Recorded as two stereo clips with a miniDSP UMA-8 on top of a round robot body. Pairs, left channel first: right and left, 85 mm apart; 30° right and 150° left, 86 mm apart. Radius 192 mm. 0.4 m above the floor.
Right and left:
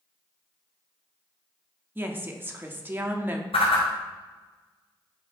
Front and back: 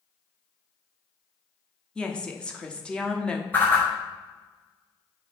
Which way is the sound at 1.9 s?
40° left.